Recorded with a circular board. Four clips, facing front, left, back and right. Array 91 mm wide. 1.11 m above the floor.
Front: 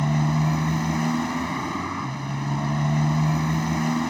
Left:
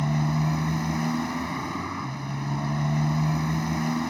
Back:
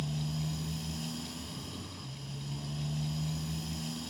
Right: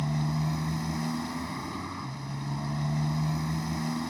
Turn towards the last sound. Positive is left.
turn(degrees=20)